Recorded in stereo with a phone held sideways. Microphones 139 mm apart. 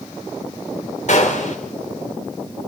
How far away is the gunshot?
About 3 m.